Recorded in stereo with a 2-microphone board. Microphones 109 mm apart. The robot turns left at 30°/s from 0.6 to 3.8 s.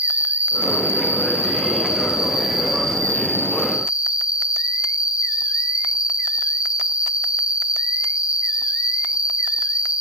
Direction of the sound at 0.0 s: 75° right.